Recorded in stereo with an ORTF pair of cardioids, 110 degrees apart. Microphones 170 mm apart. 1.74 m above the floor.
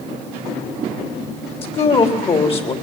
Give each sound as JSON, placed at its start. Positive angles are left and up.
{"t": 1.6, "sound": "a woman speaking", "azimuth_deg": 35, "distance_m": 4.0}